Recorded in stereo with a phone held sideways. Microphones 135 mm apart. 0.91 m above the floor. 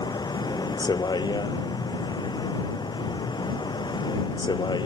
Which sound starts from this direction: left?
A vehicle, at 0.0 s.